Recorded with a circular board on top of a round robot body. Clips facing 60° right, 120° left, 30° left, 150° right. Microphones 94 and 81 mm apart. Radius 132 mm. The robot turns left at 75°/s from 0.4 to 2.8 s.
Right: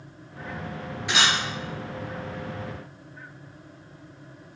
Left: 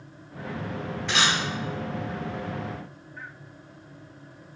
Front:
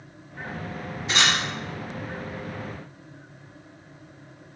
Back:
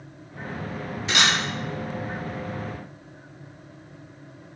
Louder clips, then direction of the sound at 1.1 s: Right 1 dB, back 1 dB; 140° right.